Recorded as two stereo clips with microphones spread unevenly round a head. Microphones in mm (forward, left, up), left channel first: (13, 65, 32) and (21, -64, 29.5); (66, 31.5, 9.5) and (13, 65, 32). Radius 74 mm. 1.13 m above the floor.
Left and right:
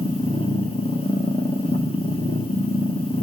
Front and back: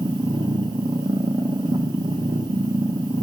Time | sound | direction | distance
0.0 | a machine running | 145° left | 1.3 m